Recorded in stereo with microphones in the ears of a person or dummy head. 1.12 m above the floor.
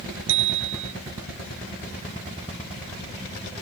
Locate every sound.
0.3 s a bicycle bell: 70° right (ahead or behind)